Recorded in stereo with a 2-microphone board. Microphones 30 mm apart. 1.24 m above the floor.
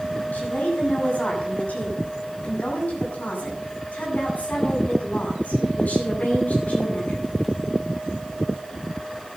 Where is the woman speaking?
65° left (ahead or behind), 8.5 m.